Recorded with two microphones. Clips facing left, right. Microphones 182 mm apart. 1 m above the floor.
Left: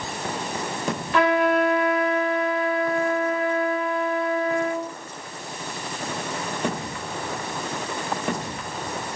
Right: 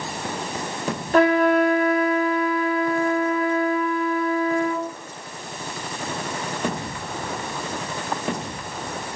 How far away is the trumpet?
About 3.5 m.